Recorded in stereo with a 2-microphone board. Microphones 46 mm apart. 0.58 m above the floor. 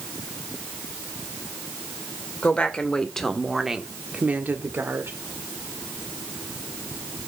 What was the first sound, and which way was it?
A woman speaking, 25° left (ahead or behind).